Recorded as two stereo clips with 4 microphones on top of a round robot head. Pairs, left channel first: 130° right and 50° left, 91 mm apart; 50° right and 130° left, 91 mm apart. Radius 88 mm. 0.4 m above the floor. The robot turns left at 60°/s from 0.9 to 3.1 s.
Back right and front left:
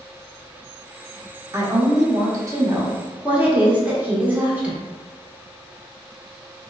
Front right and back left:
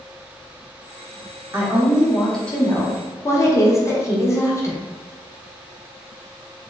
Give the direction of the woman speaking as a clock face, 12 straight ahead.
9 o'clock.